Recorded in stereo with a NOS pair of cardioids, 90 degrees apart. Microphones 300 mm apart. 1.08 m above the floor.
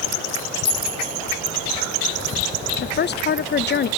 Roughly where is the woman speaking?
Ahead left.